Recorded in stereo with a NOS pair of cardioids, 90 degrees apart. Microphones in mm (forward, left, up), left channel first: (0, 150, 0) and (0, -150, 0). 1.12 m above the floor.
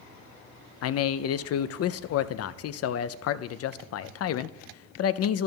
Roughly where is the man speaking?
Ahead left.